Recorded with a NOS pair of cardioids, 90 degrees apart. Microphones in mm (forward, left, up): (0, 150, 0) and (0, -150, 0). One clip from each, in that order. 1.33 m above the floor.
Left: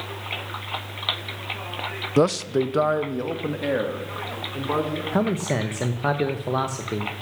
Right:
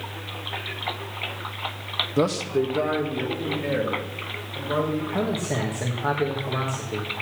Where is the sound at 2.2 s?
35° left, 0.7 m; by 5.0 s 65° left, 5 m.